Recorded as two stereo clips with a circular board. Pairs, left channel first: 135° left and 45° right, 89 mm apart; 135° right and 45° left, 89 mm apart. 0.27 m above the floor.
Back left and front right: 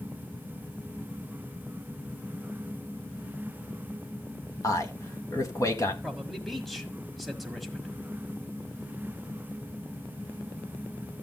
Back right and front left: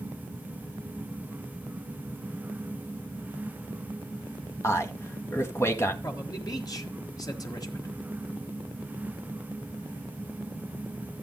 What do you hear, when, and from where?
4.6 s a man speaking: 175° left, 1.5 m
6.0 s a man speaking: 135° right, 1.6 m